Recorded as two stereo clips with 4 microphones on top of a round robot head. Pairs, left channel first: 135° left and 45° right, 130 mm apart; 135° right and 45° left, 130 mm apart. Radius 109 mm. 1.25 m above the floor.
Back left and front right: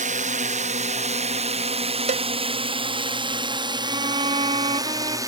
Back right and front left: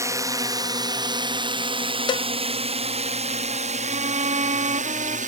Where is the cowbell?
80° right.